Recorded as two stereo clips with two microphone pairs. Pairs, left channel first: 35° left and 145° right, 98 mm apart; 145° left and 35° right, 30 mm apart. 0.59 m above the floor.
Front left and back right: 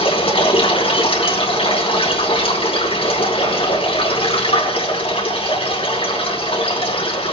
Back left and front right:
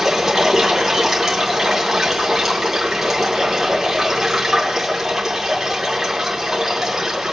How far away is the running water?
About 3 m.